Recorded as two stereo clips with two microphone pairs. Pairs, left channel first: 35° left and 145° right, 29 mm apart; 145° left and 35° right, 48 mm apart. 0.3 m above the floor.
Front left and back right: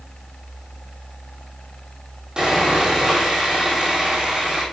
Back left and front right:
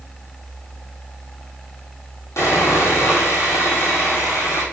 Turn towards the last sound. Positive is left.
turn(degrees=155)